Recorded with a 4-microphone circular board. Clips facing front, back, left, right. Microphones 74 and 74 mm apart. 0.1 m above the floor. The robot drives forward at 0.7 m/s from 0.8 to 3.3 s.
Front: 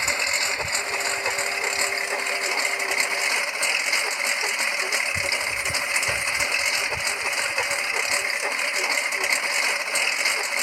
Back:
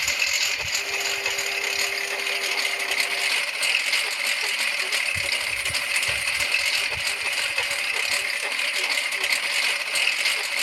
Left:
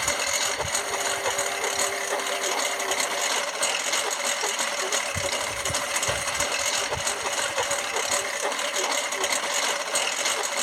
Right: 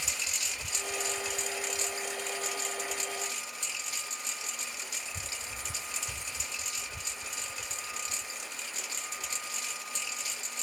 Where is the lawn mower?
65° left; by 10.6 s 70° left.